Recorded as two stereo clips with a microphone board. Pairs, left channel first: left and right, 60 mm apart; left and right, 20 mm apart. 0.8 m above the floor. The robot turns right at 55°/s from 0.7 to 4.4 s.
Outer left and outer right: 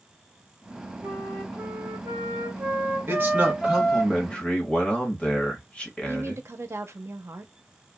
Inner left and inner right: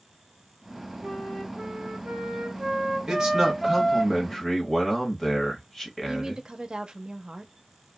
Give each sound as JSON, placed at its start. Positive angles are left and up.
{"t": 1.0, "sound": "a flute", "azimuth_deg": -135, "distance_m": 1.4}
{"t": 3.1, "sound": "a man speaking", "azimuth_deg": -50, "distance_m": 1.2}
{"t": 6.1, "sound": "a woman speaking", "side_deg": -50, "distance_m": 0.6}